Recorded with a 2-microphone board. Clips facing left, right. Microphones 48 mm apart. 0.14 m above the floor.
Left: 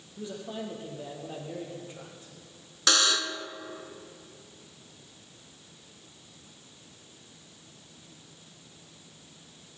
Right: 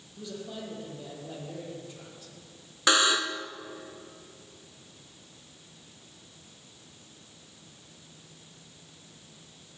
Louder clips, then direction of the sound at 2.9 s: Right 3 dB; 20° right (ahead or behind).